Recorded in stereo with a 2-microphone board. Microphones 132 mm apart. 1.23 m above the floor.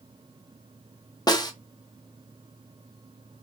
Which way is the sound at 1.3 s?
30° left (ahead or behind).